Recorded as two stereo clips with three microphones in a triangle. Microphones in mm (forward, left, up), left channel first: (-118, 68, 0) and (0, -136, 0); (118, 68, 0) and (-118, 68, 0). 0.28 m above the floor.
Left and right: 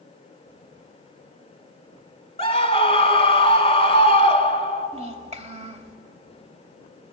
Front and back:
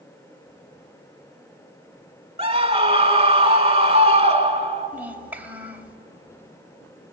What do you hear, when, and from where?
2.4 s a scream: 150° left, 1.2 m
4.9 s a child speaking: 105° right, 1.1 m